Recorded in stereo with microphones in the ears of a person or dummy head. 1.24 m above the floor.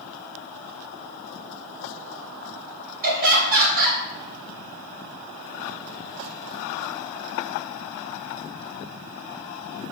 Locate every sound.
3.0 s laughter: 45° right (ahead or behind), 0.9 m